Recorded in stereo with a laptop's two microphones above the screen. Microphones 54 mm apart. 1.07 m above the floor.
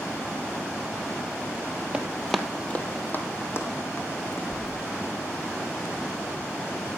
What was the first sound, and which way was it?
Running footsteps, 20° right (ahead or behind).